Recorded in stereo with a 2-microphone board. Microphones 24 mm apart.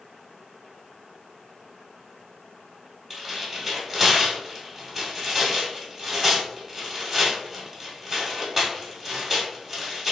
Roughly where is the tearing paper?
Centre.